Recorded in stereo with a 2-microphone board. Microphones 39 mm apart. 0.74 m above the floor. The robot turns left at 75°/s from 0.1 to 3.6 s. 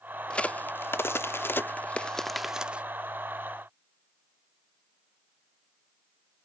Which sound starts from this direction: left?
A crack, at 0.3 s.